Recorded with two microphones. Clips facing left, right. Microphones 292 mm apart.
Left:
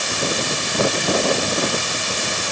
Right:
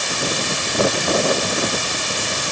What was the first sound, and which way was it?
Only background noise.